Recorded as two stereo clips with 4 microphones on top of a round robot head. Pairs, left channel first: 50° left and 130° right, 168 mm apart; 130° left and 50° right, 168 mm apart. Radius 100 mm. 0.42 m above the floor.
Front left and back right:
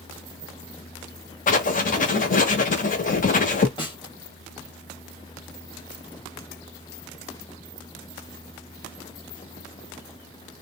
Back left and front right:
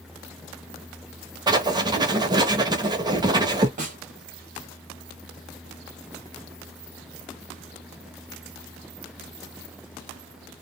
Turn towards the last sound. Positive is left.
turn(degrees=-10)